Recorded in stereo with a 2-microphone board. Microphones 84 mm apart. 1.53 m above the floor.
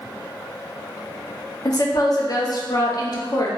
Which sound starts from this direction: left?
A woman speaking, at 1.6 s.